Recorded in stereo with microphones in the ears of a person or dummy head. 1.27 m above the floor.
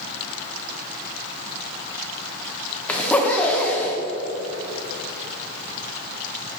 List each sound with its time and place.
2.9 s a zipper: 5° left (ahead or behind), 0.9 m